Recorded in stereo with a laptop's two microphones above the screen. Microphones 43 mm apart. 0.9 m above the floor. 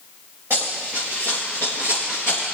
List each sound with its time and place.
0.5 s running footsteps: 60° right (ahead or behind), 4.5 m; by 2.4 s 40° right (ahead or behind), 5 m